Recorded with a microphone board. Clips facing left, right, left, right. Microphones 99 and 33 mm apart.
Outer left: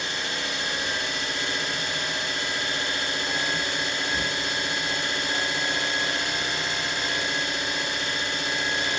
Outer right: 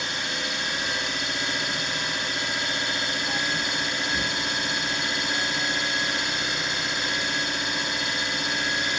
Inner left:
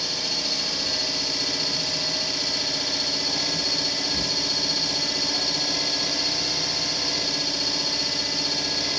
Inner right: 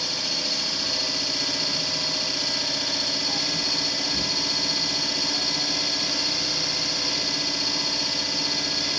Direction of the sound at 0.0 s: 15° right (ahead or behind).